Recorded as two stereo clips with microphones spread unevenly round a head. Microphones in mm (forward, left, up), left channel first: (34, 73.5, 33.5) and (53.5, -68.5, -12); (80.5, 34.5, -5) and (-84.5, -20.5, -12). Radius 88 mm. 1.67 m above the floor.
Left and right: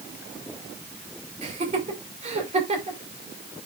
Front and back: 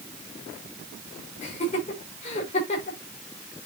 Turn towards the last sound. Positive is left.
turn(degrees=-35)